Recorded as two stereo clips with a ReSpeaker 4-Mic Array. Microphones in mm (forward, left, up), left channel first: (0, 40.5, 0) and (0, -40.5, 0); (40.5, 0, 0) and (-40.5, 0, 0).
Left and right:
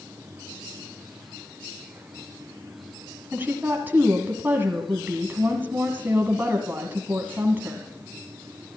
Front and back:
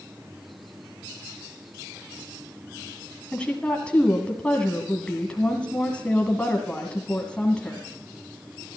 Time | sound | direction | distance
3.3 | a woman speaking | 60° right | 1.6 m